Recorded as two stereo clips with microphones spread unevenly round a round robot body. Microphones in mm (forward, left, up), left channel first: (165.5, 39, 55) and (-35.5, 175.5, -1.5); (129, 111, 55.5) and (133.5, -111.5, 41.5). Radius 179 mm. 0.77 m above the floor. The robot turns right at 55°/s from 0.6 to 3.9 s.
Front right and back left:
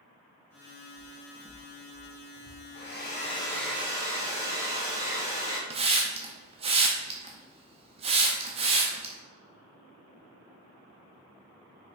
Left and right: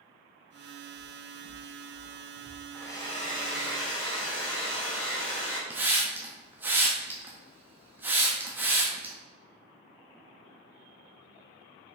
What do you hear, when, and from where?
1.0 s footsteps: 40° left, 2.5 m; by 2.6 s 155° left, 2.5 m
2.7 s a hair dryer: 5° left, 2.5 m; by 5.6 s 70° left, 2.5 m
5.7 s a hiss: 165° right, 0.5 m